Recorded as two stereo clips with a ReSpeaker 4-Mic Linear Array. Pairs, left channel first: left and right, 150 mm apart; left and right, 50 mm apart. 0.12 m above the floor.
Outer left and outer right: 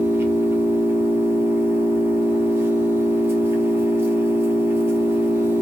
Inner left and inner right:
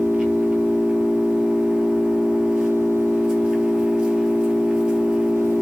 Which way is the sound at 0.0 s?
15° right (ahead or behind).